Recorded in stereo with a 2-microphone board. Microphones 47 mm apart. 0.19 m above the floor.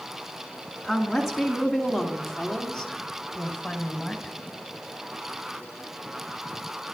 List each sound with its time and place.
0.8 s a woman speaking: 5° right (ahead or behind), 2 m; by 4.3 s 20° left (ahead or behind), 1.5 m